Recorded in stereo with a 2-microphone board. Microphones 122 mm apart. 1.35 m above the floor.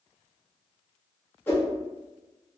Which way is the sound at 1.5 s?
20° left (ahead or behind).